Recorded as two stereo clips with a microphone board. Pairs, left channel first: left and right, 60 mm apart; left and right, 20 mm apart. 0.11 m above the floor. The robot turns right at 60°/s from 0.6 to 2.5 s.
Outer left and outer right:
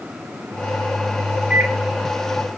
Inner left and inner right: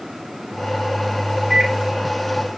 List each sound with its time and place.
1.5 s a microwave: 10° right (ahead or behind), 1.3 m; by 1.8 s 20° right (ahead or behind), 1.3 m